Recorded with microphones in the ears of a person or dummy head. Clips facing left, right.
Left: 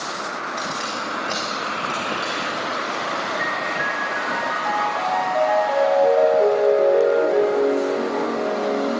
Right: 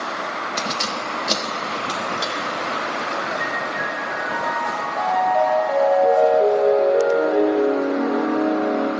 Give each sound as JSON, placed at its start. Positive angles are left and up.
{"t": 0.6, "sound": "keys jangling", "side_deg": -55, "distance_m": 0.7}
{"t": 3.4, "sound": "a piano", "side_deg": 5, "distance_m": 1.6}